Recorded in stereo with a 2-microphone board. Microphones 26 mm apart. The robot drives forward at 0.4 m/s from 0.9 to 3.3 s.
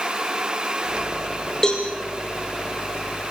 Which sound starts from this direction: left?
A cowbell, at 1.6 s.